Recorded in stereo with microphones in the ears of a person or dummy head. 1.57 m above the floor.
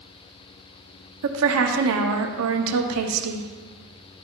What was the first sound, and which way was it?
A woman speaking, 75° right (ahead or behind).